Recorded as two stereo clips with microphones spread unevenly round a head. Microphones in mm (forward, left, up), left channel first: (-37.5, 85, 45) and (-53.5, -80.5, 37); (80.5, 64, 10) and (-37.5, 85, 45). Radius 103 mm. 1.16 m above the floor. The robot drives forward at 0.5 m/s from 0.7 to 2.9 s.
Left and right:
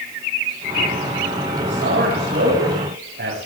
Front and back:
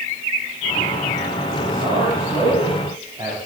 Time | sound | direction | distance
1.6 | a man speaking | 110° right | 8 m